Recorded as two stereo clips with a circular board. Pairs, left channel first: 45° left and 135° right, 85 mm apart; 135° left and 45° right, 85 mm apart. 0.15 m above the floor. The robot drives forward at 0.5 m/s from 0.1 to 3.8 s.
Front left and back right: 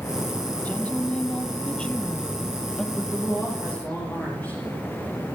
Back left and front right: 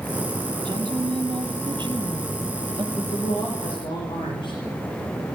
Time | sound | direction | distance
0.7 | a woman speaking | 20° right | 3 m
3.0 | a woman speaking | 115° left | 8 m